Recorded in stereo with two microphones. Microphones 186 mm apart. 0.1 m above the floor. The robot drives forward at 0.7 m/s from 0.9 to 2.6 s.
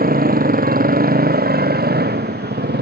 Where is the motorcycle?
50° right (ahead or behind); by 2.8 s 60° right (ahead or behind).